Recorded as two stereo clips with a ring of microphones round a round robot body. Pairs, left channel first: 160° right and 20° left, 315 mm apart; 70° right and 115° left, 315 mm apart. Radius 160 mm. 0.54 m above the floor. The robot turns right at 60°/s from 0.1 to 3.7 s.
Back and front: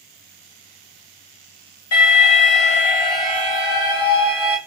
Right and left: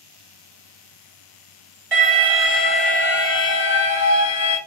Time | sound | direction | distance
1.9 | an alarm | 165° left | 1.3 m